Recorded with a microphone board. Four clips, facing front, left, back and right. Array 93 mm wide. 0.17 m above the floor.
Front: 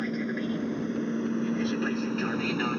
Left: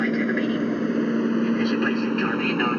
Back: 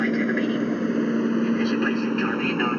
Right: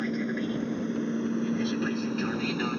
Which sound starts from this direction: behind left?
An aircraft, at 0.0 s.